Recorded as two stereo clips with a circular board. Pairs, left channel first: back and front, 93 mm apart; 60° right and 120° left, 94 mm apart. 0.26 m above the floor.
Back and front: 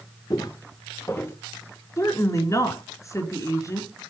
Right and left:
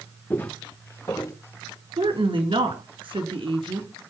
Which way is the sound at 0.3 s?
130° right.